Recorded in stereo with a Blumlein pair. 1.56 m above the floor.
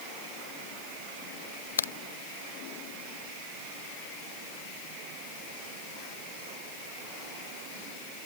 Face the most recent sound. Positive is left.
turn(degrees=70)